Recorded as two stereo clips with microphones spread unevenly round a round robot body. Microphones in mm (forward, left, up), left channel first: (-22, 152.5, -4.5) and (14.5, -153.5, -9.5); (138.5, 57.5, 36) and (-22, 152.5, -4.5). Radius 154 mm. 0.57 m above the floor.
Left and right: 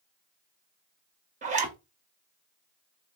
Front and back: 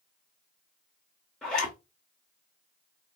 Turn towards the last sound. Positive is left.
turn(degrees=-135)